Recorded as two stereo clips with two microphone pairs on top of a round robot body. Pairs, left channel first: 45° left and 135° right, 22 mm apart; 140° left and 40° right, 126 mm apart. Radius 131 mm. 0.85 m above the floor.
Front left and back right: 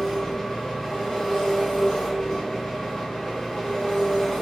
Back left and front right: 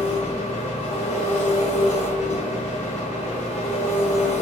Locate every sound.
0.0 s an engine running: 105° left, 0.8 m